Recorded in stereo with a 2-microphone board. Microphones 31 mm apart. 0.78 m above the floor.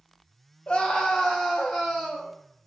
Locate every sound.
0.7 s a scream: 30° left (ahead or behind), 0.5 m; by 2.3 s 10° right (ahead or behind), 1.1 m